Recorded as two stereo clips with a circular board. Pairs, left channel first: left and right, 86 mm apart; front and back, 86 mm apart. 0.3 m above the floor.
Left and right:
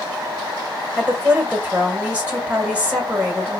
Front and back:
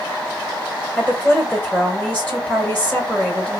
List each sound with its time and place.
1.0 s a woman speaking: 50° right, 1.5 m